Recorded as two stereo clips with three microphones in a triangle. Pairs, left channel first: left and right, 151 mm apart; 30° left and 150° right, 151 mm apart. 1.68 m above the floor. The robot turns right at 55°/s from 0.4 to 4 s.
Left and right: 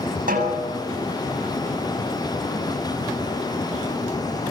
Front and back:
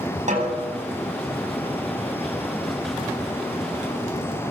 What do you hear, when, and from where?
0.3 s a snare drum: 115° right, 8.5 m; by 0.8 s 95° right, 8.5 m